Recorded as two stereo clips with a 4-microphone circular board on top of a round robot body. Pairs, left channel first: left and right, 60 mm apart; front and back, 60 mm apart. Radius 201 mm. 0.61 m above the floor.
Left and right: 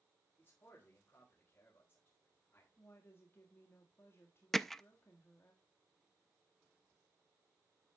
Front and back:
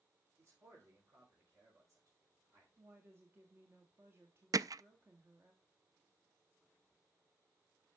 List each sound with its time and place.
0.4 s a man speaking: 145° left, 4 m
2.8 s a woman speaking: 135° left, 1.7 m
4.5 s hammering: 175° left, 0.5 m